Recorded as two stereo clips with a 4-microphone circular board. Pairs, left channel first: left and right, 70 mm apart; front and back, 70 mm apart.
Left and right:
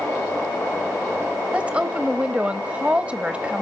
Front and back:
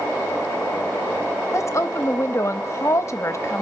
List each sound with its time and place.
1.5 s a woman speaking: 25° right, 0.8 m